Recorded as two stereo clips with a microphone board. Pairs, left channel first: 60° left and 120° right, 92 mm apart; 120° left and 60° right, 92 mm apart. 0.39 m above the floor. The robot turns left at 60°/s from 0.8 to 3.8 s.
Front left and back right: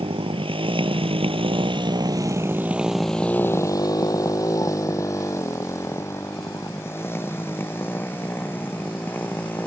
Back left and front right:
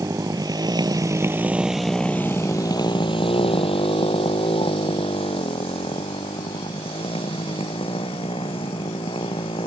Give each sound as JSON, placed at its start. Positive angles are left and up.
{"t": 0.0, "sound": "a motorcycle", "azimuth_deg": -115}